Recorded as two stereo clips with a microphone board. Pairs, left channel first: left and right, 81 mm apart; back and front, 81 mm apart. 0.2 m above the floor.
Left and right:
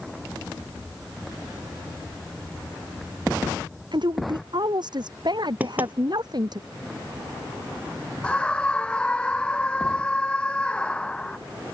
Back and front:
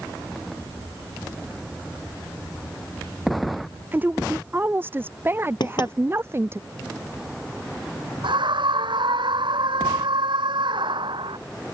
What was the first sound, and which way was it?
A woman speaking, 65° right.